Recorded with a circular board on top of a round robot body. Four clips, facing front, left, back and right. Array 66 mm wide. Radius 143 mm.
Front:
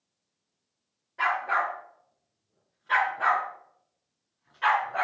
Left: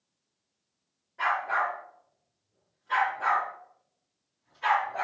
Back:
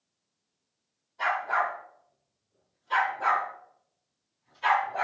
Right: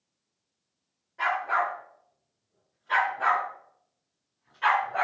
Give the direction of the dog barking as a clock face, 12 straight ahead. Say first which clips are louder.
Right 1 dB, front 1 dB; 12 o'clock.